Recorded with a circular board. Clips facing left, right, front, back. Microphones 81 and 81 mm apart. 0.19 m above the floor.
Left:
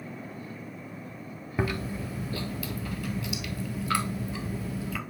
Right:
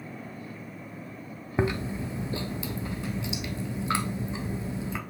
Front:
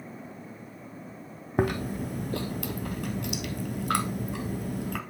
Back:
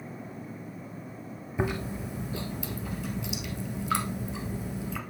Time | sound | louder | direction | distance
1.6 | chewing | right 3 dB, front 4 dB | 25° right | 1.0 m